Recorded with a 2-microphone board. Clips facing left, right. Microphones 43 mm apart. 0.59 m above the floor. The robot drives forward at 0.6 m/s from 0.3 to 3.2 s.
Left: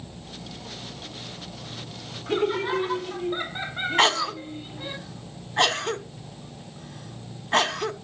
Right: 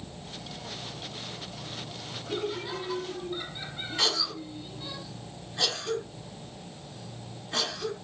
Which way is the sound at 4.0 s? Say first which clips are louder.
Left 8 dB; 50° left (ahead or behind).